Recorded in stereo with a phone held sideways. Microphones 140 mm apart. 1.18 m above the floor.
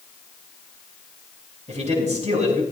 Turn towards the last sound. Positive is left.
turn(degrees=-55)  # may be behind; listen again after turning